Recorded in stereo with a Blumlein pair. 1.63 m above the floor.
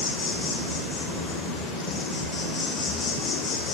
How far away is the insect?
About 1.5 m.